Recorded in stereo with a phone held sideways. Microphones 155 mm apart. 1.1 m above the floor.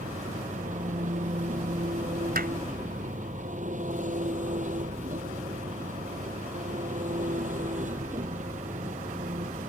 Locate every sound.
0.0 s an engine running: 55° right (ahead or behind)
2.4 s hammering: 75° right (ahead or behind)